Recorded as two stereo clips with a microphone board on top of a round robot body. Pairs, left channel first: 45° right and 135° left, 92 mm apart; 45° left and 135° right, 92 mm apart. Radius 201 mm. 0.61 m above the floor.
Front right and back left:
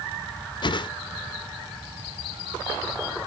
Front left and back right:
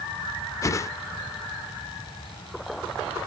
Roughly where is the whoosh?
Ahead.